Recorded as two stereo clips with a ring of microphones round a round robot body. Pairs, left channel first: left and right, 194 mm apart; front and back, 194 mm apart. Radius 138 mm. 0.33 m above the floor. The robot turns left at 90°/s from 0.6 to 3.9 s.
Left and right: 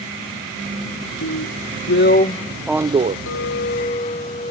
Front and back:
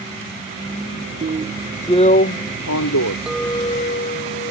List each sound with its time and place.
1.2 s a drill: 130° left; by 3.2 s 45° right
3.3 s a clink: 95° left; by 4.5 s 35° left